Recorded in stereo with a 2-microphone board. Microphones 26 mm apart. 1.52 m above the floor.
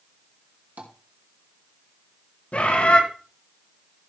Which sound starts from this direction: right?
Tapping, at 0.8 s.